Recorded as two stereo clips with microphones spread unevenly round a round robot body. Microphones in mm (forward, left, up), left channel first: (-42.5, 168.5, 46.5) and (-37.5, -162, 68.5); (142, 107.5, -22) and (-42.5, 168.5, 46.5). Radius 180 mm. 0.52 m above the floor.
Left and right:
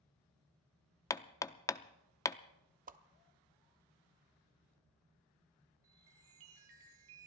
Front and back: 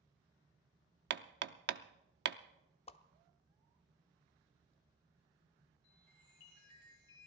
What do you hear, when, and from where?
1.1 s hammering: 160° left, 0.5 m
2.9 s a whoosh: 25° right, 0.5 m
5.8 s a chime: 70° right, 3.5 m